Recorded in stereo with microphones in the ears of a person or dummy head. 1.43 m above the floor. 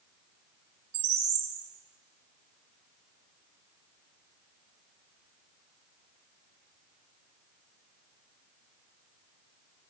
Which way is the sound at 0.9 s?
50° right (ahead or behind).